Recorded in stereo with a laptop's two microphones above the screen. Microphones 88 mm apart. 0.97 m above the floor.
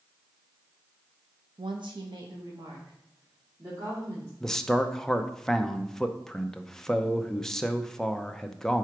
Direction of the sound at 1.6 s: 70° right (ahead or behind).